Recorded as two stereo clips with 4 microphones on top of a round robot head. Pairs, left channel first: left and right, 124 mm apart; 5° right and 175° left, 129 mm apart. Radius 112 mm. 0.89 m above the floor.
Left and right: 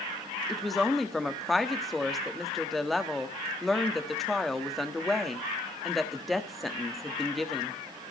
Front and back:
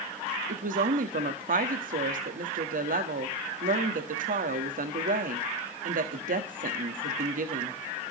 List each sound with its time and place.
0.5 s a woman speaking: straight behind, 1.4 m